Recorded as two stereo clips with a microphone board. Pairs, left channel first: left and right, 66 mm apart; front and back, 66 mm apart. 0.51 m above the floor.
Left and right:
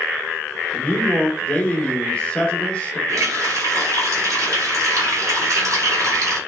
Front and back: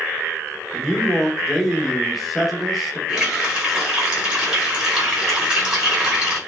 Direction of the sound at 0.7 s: 90° left.